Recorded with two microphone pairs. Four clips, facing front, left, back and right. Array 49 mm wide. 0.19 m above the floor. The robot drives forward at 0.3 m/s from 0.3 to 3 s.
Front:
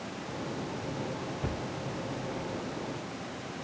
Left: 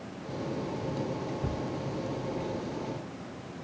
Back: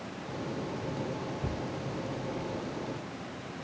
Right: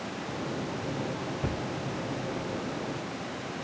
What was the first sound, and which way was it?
A thud, 45° right.